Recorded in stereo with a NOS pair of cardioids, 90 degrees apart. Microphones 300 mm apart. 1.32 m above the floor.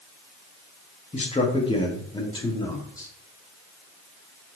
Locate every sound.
1.1 s a man speaking: 20° left, 1.9 m; by 3.1 s 10° left, 3 m